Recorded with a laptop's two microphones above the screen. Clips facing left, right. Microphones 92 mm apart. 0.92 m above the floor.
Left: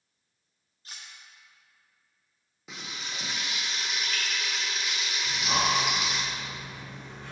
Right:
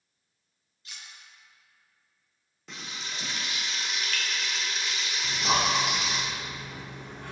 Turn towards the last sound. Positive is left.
turn(degrees=-60)  # may be behind; listen again after turning